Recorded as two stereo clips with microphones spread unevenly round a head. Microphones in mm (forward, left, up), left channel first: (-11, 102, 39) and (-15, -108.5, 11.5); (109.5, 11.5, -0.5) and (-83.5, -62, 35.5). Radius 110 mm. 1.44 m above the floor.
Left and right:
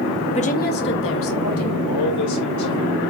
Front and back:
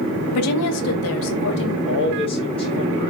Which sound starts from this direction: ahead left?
A woman speaking, at 0.3 s.